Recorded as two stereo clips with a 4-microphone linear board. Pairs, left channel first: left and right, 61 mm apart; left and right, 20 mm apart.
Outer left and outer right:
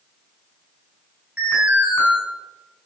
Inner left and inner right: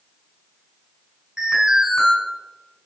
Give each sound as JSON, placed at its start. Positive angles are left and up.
{"t": 1.4, "sound": "an alarm", "side_deg": -15, "distance_m": 5.5}